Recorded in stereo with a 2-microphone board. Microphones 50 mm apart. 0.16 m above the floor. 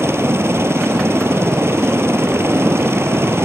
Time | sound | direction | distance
0.0 | a helicopter | 60° right (ahead or behind) | ?